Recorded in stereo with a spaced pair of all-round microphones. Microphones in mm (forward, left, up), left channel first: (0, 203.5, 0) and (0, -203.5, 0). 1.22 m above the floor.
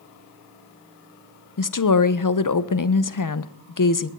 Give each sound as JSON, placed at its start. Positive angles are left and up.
{"t": 1.6, "sound": "a woman speaking", "side_deg": 50, "distance_m": 0.5}